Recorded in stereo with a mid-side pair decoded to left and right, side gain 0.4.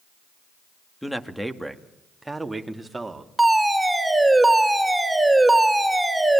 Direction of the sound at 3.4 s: 10° right.